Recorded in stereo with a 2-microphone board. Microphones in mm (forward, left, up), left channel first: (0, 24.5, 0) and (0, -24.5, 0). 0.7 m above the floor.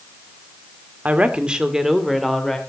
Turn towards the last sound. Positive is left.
turn(degrees=5)  # may be behind; listen again after turning